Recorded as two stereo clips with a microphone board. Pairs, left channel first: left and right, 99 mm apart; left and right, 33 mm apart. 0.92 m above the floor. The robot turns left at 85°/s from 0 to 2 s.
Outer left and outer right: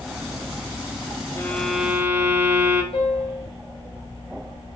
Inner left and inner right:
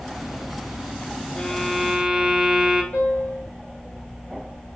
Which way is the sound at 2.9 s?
75° left (ahead or behind).